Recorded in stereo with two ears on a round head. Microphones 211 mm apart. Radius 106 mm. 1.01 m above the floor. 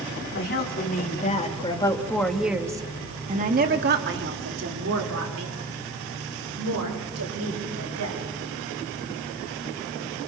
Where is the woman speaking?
45° left (ahead or behind), 3.5 m; by 8.2 s 80° right, 7 m.